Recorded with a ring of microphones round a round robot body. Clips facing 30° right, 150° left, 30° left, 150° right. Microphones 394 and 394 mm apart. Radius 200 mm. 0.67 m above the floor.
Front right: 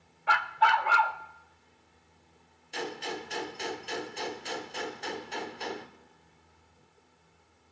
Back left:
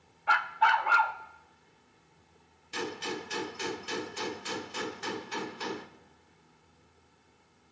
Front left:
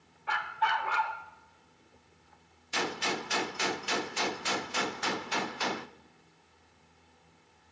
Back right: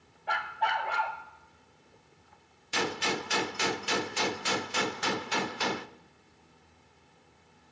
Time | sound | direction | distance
0.3 | a dog barking | 45° right | 0.9 m
2.7 | a gunshot | 135° right | 0.6 m